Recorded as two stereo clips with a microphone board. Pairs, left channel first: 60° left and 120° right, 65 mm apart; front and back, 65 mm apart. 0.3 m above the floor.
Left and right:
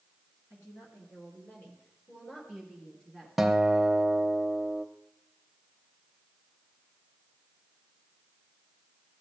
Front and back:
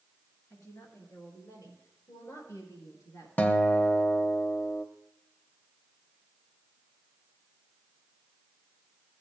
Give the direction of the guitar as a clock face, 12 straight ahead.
1 o'clock.